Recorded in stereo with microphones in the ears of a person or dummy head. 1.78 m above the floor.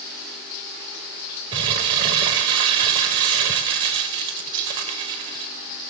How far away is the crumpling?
About 0.7 m.